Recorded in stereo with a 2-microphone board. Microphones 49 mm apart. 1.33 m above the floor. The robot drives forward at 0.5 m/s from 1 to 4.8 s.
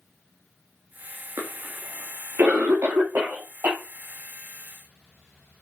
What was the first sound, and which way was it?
A cough, 60° right (ahead or behind).